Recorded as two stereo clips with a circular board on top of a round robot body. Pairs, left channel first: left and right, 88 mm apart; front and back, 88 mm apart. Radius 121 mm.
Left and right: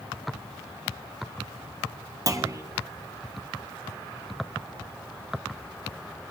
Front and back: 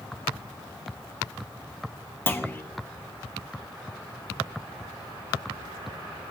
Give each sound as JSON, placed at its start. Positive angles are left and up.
{"t": 2.3, "sound": "a clunk", "azimuth_deg": -60, "distance_m": 0.9}